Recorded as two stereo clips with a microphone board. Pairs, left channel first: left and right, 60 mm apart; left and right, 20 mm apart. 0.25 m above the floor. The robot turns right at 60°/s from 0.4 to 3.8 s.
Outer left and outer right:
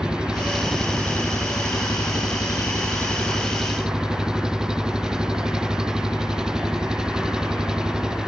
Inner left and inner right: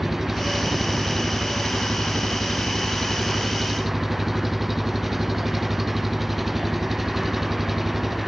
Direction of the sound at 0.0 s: 15° right.